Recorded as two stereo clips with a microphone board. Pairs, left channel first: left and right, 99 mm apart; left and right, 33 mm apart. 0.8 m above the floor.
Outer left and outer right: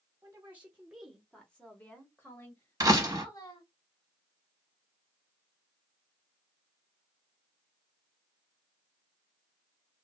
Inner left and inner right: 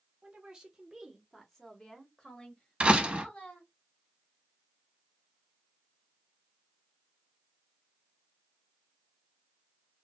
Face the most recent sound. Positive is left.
turn(degrees=-35)  # may be behind; listen again after turning